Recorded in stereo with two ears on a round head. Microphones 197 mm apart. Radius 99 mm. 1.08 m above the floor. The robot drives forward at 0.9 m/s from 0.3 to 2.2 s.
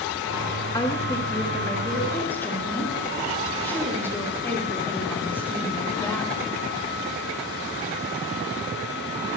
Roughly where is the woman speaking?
Centre.